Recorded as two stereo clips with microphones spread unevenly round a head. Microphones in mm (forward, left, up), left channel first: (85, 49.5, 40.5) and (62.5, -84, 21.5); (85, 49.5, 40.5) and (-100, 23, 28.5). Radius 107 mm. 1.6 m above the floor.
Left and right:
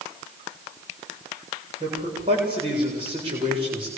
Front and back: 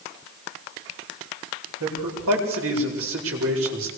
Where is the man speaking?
165° right, 8.5 m.